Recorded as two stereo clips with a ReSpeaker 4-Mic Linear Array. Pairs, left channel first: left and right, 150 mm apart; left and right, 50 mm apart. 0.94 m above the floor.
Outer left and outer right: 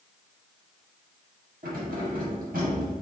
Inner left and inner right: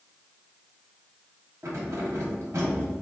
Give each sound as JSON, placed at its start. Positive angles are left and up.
{"t": 1.6, "sound": "keys jangling", "side_deg": -75, "distance_m": 1.4}